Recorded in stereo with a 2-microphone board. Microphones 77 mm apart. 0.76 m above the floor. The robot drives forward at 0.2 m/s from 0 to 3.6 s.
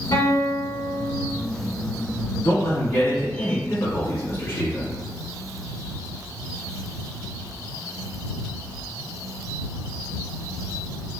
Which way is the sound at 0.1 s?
75° left (ahead or behind).